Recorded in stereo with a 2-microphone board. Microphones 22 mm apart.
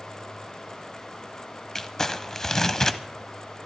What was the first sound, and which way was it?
Crumpling, 25° left (ahead or behind).